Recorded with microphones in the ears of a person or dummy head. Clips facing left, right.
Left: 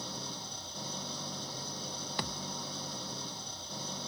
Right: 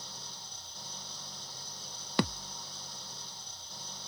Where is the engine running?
55° left (ahead or behind).